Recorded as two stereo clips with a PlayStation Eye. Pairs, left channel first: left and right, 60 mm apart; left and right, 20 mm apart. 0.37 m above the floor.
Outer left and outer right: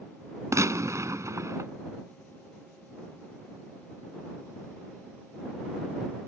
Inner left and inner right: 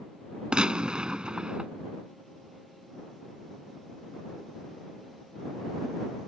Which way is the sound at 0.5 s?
55° right (ahead or behind).